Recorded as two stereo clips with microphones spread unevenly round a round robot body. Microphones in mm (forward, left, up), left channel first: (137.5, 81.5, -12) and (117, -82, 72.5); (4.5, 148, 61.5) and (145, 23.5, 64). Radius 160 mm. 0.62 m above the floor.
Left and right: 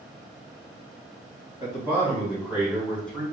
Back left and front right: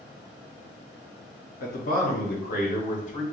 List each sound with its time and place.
1.6 s a man speaking: 170° left, 2 m; by 3.2 s 120° left, 1.4 m